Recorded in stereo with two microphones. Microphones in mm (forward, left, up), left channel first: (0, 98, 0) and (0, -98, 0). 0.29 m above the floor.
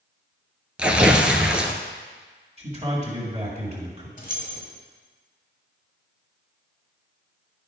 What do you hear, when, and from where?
0.8 s tearing paper: 5° right (ahead or behind), 0.7 m
2.6 s a man speaking: 35° right (ahead or behind), 1.8 m
4.2 s keys jangling: 45° left (ahead or behind), 1.1 m